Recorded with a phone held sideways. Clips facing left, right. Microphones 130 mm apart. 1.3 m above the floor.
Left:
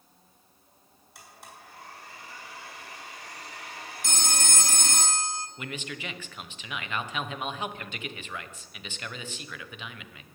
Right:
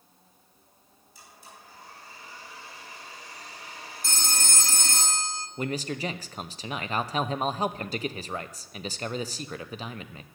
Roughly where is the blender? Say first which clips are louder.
Left 2 dB; left.